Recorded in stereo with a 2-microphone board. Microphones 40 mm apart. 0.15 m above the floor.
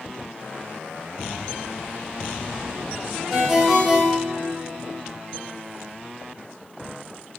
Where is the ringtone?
5° right (ahead or behind), 2.5 m.